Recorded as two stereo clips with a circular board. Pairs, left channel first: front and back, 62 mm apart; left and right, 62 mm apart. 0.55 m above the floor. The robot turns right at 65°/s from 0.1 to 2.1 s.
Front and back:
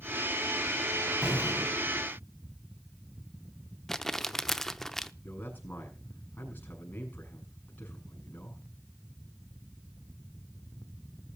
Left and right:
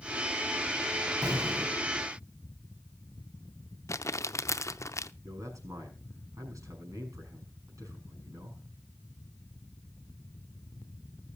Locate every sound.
1.2 s an explosion: 105° right, 3 m; by 1.9 s 60° right, 3 m
3.9 s crumpling: 85° left, 0.6 m
5.2 s a man speaking: 60° right, 6.5 m